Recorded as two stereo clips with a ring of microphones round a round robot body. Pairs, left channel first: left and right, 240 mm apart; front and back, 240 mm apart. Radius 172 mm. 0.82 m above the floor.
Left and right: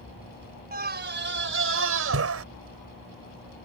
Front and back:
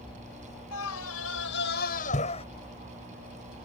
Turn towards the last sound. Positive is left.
turn(degrees=-75)